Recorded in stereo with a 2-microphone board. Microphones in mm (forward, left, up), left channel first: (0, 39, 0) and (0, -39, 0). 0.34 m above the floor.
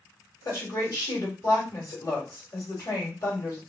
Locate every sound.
0.5 s a woman speaking: 45° left (ahead or behind), 1.7 m